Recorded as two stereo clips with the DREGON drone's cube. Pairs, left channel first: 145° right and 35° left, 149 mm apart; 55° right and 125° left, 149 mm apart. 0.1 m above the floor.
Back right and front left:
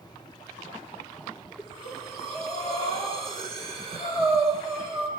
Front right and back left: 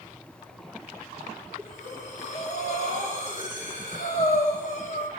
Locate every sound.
1.6 s breathing: 20° right, 7.5 m